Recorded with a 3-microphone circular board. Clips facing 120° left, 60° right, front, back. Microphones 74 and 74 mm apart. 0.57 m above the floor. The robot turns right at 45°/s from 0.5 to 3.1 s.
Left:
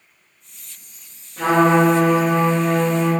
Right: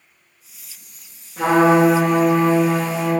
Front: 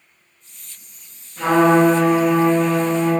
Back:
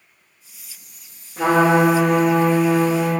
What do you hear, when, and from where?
1.4 s a trumpet: 130° right, 0.9 m; by 3.1 s 50° right, 0.9 m